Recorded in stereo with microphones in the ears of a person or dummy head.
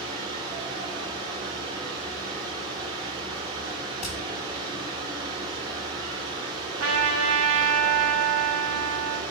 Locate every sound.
0.0 s a fan: 40° right (ahead or behind), 3.5 m
4.0 s hammering: 5° left (ahead or behind), 4 m
6.8 s a trumpet: 85° right, 1.1 m